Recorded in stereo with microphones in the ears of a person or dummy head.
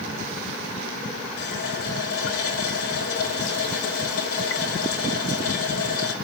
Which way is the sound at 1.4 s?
80° left.